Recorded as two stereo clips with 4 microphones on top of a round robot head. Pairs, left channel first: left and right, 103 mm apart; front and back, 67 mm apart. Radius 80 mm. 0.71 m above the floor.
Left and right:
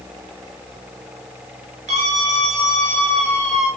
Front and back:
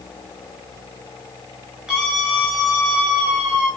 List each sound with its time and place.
1.9 s a scream: 95° right, 9.5 m